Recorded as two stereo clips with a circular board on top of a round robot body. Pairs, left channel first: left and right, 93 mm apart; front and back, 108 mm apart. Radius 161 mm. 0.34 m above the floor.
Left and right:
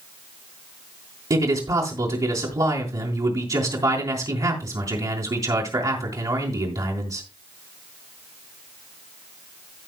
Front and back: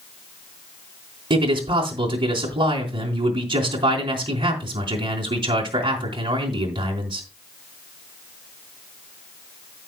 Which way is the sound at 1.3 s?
135° right.